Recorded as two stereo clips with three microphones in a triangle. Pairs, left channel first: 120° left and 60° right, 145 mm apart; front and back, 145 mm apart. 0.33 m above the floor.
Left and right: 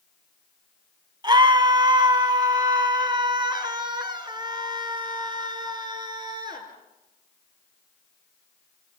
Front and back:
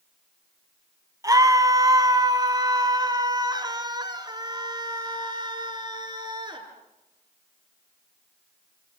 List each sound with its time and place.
1.2 s a scream: 115° right, 2.5 m; by 6.7 s 120° right, 5.5 m